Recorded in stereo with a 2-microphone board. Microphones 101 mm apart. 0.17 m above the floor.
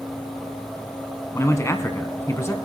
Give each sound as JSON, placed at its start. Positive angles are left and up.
{"t": 1.3, "sound": "a man speaking", "side_deg": 30, "distance_m": 1.2}